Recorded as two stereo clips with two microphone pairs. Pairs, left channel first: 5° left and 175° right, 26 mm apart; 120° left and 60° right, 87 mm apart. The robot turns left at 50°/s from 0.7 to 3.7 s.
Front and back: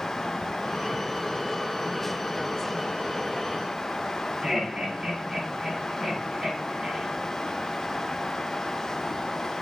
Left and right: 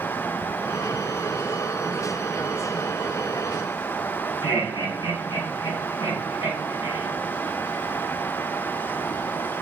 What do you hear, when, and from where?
4.4 s laughter: 115° left, 2.5 m